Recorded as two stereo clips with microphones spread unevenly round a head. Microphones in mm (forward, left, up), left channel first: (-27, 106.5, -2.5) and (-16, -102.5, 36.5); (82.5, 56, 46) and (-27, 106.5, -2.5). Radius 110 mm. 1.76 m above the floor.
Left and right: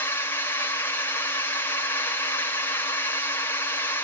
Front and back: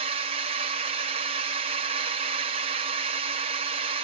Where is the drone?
170° left.